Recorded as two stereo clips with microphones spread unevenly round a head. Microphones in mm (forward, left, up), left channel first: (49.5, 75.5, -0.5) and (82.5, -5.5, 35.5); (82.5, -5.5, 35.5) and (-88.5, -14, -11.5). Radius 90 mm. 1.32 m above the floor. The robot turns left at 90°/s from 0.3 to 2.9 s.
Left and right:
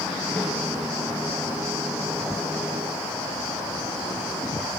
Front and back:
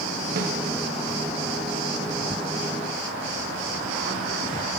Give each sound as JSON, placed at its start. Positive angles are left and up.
{"t": 0.4, "sound": "a snare drum", "azimuth_deg": 180, "distance_m": 0.8}